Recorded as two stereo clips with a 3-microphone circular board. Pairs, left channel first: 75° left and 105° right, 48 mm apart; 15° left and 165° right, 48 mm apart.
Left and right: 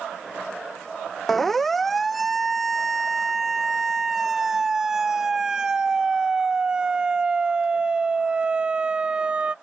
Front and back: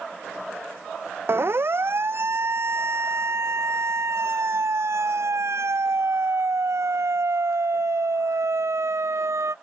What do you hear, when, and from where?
1.3 s a siren: 160° left; by 9.5 s 170° right